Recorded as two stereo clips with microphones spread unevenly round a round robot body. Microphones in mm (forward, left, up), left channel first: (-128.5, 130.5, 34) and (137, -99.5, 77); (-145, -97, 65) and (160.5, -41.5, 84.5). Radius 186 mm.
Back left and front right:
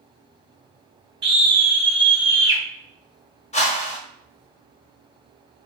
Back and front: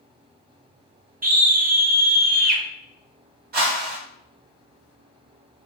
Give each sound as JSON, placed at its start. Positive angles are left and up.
{"t": 1.2, "sound": "a scream", "azimuth_deg": -15, "distance_m": 1.5}
{"t": 3.5, "sound": "a whoosh", "azimuth_deg": 70, "distance_m": 1.0}